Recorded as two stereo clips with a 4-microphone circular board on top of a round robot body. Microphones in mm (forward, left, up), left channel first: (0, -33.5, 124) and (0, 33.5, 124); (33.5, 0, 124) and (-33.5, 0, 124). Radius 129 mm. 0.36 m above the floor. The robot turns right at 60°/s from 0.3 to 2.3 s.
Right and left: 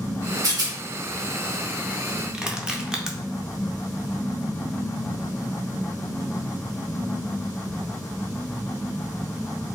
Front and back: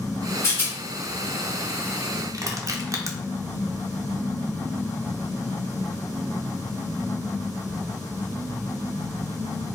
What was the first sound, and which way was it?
A rattle, 50° left.